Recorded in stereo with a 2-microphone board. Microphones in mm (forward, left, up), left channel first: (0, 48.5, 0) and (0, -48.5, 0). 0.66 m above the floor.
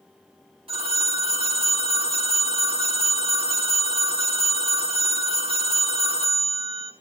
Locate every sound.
0.7 s a phone ringing: 75° right (ahead or behind), 3.5 m